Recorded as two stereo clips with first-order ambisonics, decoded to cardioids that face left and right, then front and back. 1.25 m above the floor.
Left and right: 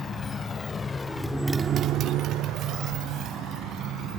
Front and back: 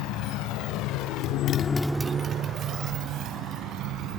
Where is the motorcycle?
25° left; by 4.2 s 140° right.